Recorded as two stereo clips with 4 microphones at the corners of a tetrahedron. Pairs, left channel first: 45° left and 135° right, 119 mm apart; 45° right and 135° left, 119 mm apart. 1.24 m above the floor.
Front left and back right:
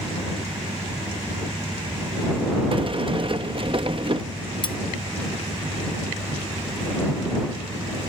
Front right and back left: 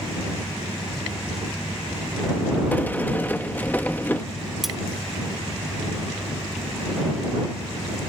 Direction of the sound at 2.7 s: 115° right.